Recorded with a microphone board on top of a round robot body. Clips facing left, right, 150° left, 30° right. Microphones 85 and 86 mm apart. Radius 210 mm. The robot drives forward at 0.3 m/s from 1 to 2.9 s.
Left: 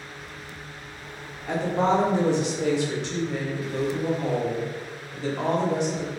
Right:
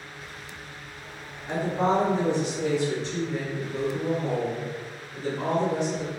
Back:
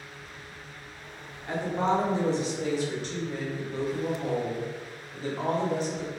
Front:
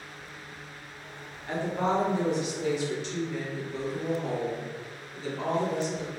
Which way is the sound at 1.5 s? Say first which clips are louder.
Left 2 dB, back 1 dB; 70° left.